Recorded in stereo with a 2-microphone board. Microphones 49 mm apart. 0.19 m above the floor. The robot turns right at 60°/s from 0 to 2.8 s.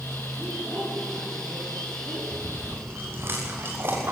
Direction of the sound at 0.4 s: 135° right.